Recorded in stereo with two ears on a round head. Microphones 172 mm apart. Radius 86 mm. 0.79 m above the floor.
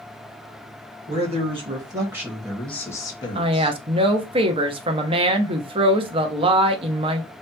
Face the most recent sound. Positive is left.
turn(degrees=-30)  # may be behind; listen again after turning